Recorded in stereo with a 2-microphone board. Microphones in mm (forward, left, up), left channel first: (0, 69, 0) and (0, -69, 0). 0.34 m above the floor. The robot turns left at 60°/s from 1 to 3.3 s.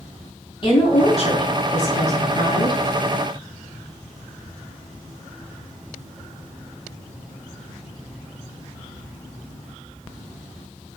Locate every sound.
0.6 s a woman speaking: 140° left, 2.5 m; by 2.8 s 30° left, 2.5 m